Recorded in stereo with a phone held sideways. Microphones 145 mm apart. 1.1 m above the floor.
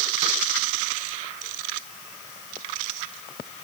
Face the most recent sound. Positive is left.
No sound to turn to.